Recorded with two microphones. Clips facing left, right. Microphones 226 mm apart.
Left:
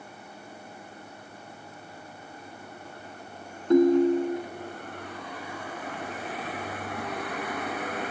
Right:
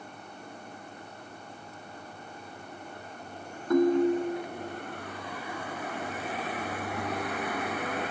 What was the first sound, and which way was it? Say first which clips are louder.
A ringtone: left 4 dB; 25° left (ahead or behind).